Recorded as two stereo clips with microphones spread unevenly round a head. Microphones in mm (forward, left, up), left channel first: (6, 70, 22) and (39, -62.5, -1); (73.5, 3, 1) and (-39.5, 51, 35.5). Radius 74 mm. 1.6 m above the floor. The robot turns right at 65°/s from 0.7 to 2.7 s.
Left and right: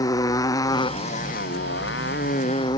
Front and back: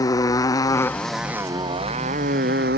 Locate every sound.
0.0 s a motorcycle: 40° left; by 2.8 s 170° left